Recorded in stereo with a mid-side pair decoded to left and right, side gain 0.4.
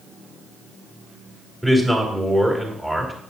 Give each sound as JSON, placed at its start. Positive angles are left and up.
{"t": 1.6, "sound": "a man speaking", "azimuth_deg": -5, "distance_m": 3.0}